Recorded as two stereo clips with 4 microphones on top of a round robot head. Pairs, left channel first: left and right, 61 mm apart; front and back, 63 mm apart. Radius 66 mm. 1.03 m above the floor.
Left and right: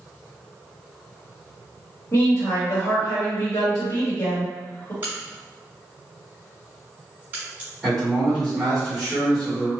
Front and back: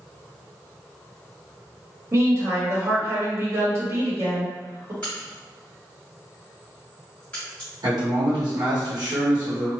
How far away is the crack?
About 0.9 m.